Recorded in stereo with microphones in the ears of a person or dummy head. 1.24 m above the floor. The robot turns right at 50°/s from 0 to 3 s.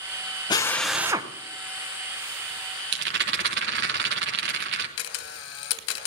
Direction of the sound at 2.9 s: 65° right (ahead or behind).